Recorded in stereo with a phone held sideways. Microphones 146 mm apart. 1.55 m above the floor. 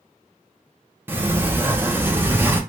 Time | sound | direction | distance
1.1 | a sliding door | 15° right (ahead or behind) | 0.6 m